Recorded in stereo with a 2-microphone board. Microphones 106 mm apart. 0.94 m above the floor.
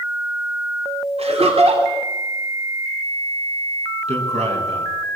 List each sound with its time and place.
1.2 s laughter: 75° right (ahead or behind), 3 m
4.1 s a man speaking: 90° right, 8.5 m